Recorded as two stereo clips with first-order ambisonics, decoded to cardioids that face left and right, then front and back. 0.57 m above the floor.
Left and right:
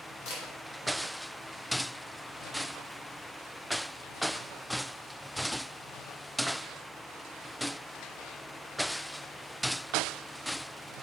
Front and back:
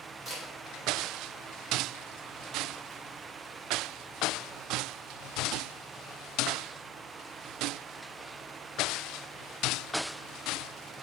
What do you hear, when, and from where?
0.2 s a camera shutter: 100° left, 1.9 m